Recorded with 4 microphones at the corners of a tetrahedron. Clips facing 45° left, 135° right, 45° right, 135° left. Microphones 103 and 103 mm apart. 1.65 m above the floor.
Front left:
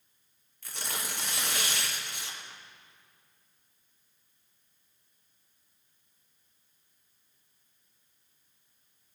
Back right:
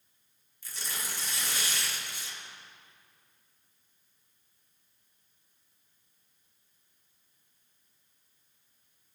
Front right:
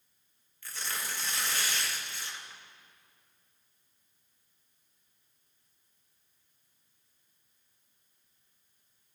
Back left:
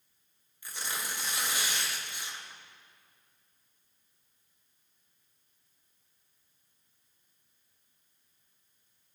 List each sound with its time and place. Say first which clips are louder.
0.6 s tearing paper: front left 3 dB, back left 1 dB; 65° left, 1.2 m